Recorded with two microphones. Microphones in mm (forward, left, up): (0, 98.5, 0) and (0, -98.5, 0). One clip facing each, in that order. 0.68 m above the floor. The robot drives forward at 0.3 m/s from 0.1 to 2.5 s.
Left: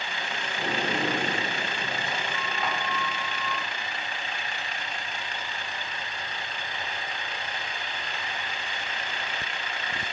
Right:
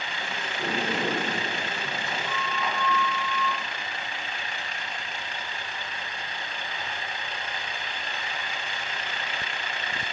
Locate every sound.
0.6 s a sliding door: 40° left (ahead or behind), 1.1 m; by 3.7 s 65° left (ahead or behind), 0.8 m